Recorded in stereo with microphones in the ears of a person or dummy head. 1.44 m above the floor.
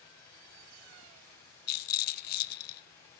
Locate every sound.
1.7 s a rattle: 55° left (ahead or behind), 0.6 m